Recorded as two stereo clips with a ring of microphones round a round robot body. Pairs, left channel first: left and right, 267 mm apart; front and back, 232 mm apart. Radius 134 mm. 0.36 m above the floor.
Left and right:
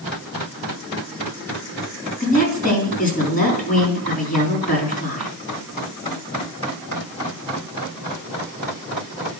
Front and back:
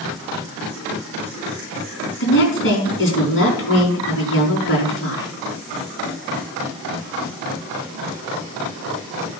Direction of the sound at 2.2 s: 30° left.